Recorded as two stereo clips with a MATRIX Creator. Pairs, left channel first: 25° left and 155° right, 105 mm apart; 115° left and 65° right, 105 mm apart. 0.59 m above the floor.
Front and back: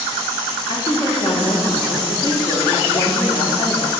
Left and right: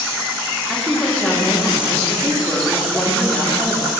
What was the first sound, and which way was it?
A woman speaking, 25° left.